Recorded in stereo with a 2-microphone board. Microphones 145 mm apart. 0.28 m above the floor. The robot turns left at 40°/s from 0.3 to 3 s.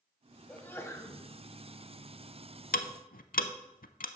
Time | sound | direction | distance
0.5 | a sneeze | 10° left (ahead or behind) | 1.2 m
2.7 | ticking | 80° left | 0.6 m